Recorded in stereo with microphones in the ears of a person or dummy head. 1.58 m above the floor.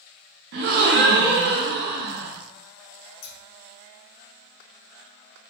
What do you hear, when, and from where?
0.5 s a gasp: 55° right (ahead or behind), 0.6 m
3.2 s scissors: 65° left (ahead or behind), 1.4 m